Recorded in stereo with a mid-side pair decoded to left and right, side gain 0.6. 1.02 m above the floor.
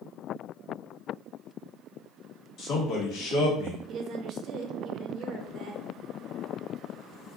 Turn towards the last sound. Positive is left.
turn(degrees=-50)